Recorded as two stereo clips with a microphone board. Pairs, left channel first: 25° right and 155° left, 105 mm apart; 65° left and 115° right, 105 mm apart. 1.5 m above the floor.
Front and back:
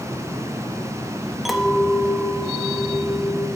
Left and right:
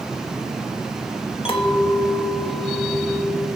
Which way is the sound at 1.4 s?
70° left.